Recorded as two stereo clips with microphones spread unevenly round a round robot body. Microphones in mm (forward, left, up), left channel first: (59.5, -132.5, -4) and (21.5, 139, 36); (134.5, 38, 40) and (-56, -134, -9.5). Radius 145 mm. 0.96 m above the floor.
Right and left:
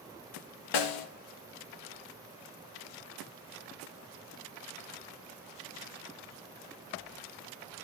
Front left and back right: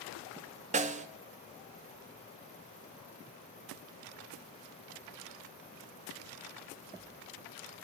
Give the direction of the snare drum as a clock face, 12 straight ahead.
2 o'clock.